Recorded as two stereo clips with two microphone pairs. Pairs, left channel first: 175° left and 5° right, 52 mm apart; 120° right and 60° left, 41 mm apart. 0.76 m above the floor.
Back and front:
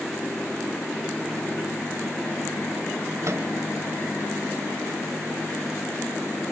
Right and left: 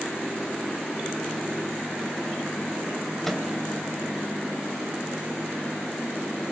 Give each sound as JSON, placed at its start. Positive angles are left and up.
{"t": 3.2, "sound": "a microwave", "azimuth_deg": -35, "distance_m": 3.0}